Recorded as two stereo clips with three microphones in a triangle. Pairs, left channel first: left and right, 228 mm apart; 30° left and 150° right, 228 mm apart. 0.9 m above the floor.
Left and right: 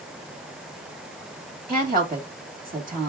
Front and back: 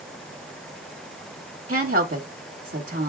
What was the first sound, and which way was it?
A woman speaking, 140° right.